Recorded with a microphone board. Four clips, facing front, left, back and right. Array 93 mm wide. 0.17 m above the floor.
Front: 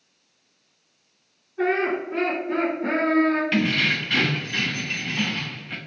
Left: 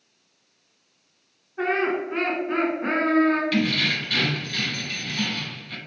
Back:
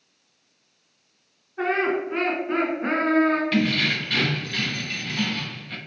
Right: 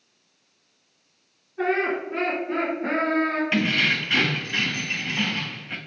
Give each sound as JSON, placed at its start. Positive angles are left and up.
{"t": 1.6, "sound": "laughter", "azimuth_deg": 145, "distance_m": 1.9}
{"t": 3.5, "sound": "keys jangling", "azimuth_deg": -65, "distance_m": 0.7}